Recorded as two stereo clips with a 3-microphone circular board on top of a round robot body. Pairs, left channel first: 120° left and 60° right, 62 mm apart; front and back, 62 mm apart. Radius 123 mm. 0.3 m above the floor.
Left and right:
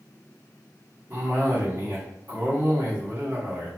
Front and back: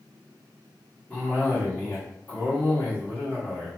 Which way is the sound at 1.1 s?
50° right.